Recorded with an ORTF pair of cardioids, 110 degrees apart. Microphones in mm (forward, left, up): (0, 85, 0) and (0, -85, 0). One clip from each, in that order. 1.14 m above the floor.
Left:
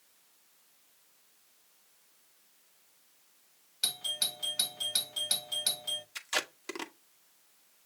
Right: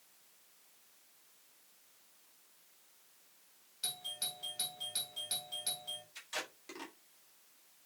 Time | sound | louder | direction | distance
3.8 | a doorbell | left 8 dB | 55° left | 1.6 m
6.2 | tape being pulled | left 9 dB | 60° left | 1.7 m